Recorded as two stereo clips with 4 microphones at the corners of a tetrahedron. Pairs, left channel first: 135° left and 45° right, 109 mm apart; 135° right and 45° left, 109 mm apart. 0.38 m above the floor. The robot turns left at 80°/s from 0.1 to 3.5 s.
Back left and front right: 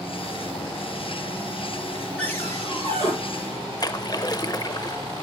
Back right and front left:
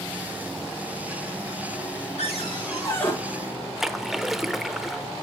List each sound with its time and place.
2.2 s a cupboard door: 140° right, 7 m; by 3.1 s 145° left, 7 m
3.8 s a splash: 130° left, 0.6 m